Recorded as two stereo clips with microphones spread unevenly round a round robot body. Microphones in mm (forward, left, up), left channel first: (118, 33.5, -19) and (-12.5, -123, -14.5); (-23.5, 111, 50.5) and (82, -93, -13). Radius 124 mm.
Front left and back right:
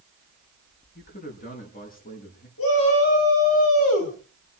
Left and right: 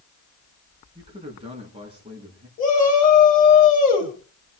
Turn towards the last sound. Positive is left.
turn(degrees=60)